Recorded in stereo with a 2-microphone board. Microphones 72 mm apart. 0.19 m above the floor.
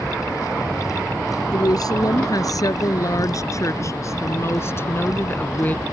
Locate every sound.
1.5 s a woman speaking: 60° left (ahead or behind); by 5.8 s 20° left (ahead or behind)